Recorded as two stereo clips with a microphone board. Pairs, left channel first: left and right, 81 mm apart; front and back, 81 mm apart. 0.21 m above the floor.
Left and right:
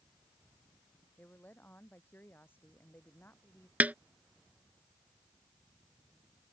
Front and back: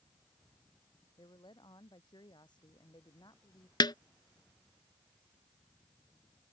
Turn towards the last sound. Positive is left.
turn(degrees=-20)